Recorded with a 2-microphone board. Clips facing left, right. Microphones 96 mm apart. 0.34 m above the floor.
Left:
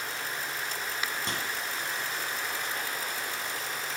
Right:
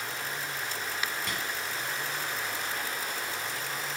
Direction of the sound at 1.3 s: 25° left (ahead or behind).